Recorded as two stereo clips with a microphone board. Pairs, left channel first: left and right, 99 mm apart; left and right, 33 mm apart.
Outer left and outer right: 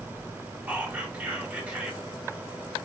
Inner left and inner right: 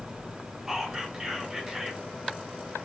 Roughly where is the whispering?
Centre.